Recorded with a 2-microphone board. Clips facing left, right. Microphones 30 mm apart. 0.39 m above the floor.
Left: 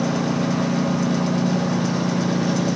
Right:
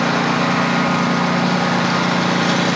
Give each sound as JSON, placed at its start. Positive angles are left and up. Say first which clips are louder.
{"t": 0.0, "sound": "a lawn mower", "louder": "right 5 dB", "side_deg": -70}